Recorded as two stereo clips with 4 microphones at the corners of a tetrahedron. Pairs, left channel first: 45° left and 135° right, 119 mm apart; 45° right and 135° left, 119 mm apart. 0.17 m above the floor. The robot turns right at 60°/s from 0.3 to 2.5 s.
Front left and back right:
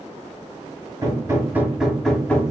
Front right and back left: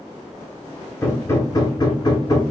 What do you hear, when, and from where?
1.0 s hammering: 100° right, 0.7 m; by 2.4 s 20° right, 0.7 m